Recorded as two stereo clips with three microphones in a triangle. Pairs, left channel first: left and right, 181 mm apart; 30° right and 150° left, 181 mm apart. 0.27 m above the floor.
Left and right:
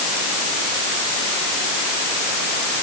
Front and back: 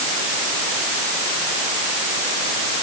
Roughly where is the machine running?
No machine running in this recording.